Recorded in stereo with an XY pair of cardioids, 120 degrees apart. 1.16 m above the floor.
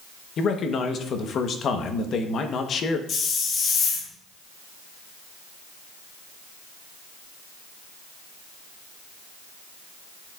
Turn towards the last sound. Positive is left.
turn(degrees=55)